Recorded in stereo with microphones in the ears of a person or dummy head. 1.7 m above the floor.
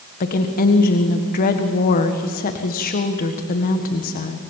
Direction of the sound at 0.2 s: 45° left (ahead or behind).